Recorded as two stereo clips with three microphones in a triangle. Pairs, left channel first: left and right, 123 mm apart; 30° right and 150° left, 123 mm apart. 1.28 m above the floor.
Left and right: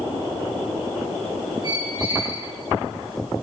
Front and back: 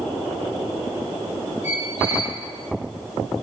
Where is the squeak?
35° right, 4.5 m.